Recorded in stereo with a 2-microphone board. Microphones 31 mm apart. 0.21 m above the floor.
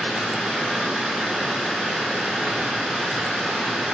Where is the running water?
40° right (ahead or behind), 1.8 m.